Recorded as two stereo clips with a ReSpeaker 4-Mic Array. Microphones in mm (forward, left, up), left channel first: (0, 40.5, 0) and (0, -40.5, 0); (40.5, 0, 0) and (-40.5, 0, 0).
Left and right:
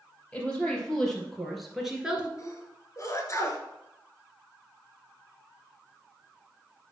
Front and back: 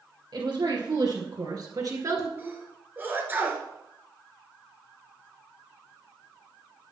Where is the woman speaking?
170° left, 4 m; by 2.3 s 155° right, 1.8 m.